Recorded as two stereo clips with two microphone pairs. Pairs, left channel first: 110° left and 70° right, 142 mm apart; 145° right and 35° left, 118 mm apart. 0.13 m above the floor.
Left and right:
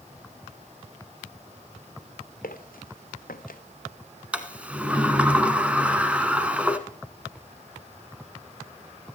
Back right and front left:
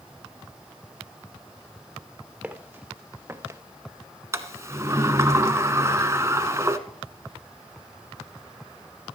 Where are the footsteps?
115° left, 1.7 m; by 3.6 s 105° left, 1.1 m.